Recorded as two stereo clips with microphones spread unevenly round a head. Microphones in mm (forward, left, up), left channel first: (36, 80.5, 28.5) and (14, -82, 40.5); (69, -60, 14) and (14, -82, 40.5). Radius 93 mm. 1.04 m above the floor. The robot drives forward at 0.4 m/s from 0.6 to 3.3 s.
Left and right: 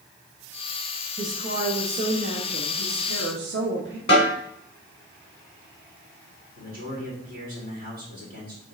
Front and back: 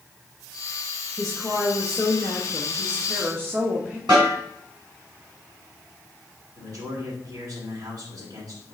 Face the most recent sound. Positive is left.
turn(degrees=-135)